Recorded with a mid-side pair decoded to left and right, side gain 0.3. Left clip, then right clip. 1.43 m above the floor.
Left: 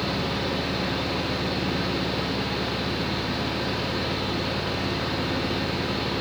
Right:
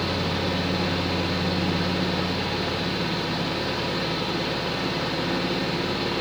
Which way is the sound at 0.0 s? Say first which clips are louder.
Right 1 dB; 60° right.